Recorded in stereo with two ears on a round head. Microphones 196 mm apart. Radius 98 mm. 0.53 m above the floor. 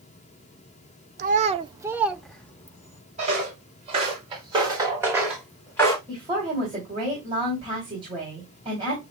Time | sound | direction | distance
1.2 | a child speaking | 40° right (ahead or behind) | 0.6 m
3.2 | footsteps | 35° right (ahead or behind) | 4.5 m
6.1 | a woman speaking | 25° right (ahead or behind) | 3 m